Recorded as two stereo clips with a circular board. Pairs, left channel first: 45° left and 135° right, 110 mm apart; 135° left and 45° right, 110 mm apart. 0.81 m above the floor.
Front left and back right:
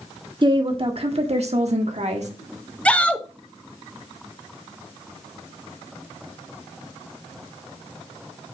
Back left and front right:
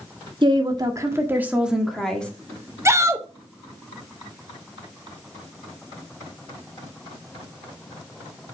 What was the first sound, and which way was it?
A woman speaking, 90° right.